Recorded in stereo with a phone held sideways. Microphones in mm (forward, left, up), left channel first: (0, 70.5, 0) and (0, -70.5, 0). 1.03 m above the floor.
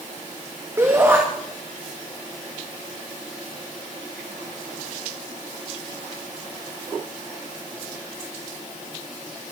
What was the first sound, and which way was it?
A shout, 15° right (ahead or behind).